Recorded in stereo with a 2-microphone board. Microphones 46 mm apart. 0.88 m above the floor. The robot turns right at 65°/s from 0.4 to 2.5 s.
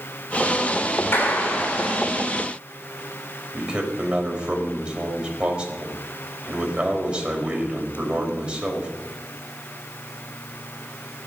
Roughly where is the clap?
Ahead left.